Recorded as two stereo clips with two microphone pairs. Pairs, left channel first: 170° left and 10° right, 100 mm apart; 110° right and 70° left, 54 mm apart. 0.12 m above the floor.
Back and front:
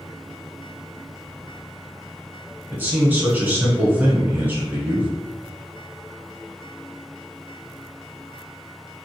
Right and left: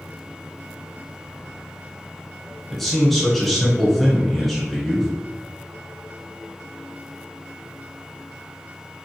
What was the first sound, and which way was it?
A man speaking, 25° right.